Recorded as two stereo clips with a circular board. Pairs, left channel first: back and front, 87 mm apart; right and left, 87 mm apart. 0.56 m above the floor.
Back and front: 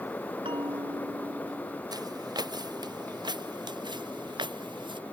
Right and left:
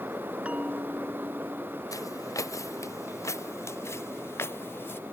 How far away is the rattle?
I don't hear a rattle.